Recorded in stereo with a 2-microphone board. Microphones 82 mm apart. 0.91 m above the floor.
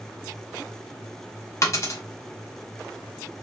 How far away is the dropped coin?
About 0.9 m.